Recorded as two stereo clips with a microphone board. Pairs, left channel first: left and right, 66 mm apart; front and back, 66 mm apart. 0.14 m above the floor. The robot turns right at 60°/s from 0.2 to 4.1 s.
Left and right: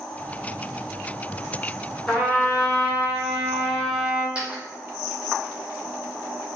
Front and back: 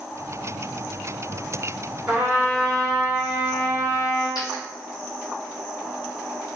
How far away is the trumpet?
About 1.6 m.